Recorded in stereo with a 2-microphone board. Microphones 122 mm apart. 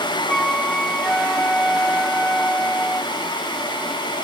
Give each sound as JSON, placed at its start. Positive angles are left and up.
{"t": 0.3, "sound": "a flute", "side_deg": 5}